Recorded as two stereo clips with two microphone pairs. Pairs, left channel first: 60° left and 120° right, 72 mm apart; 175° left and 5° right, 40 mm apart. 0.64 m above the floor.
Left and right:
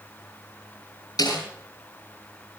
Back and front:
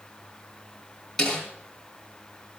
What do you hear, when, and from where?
1.2 s a snare drum: 90° left, 8.5 m